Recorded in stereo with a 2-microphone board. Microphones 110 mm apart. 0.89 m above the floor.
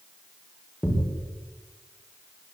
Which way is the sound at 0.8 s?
10° left (ahead or behind).